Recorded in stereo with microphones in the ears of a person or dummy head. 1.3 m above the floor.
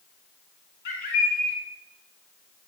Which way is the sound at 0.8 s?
50° left (ahead or behind).